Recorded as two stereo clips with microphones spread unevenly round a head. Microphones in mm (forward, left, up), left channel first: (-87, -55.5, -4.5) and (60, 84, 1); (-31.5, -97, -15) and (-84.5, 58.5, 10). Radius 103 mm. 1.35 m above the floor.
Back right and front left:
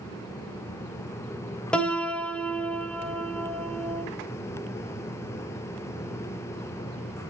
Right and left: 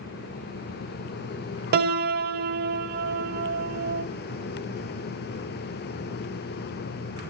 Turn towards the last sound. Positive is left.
turn(degrees=140)